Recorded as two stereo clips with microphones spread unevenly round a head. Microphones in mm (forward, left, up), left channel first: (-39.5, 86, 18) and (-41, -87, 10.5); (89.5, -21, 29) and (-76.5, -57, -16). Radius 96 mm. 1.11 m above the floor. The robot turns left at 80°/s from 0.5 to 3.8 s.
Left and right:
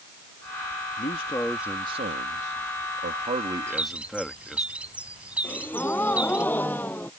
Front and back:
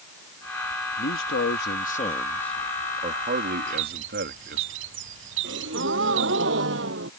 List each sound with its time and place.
1.0 s a man speaking: 45° left; by 4.7 s straight behind
3.7 s a bird: 165° right; by 6.4 s 175° right
5.4 s a gasp: 170° left